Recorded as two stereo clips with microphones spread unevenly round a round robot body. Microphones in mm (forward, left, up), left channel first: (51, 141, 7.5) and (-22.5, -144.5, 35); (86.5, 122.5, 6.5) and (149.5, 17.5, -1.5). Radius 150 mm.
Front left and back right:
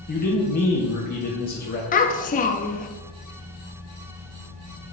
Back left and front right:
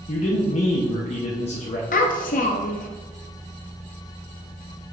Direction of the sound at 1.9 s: 140° left.